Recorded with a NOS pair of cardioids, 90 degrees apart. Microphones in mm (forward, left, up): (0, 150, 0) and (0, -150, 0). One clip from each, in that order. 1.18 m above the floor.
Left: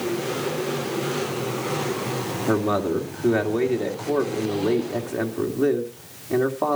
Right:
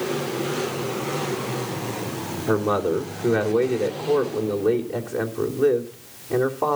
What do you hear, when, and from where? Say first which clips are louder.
2.5 s a man speaking: right 2 dB; 25° left, 3 m